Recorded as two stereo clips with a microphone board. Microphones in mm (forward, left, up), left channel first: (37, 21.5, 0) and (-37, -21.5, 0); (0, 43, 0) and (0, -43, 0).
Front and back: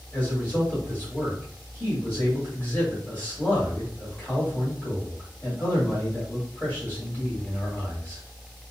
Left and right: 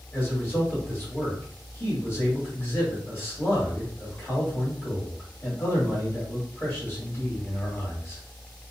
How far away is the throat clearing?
No throat clearing in this recording.